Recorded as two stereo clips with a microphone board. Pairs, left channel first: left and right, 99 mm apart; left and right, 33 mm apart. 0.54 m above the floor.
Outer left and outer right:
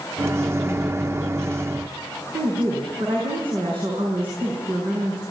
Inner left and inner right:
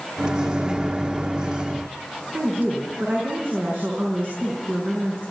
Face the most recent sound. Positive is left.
turn(degrees=-65)  # may be behind; listen again after turning